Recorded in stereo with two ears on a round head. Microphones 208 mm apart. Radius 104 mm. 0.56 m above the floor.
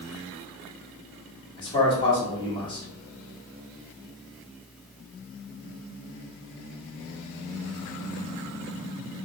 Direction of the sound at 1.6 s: 20° left (ahead or behind).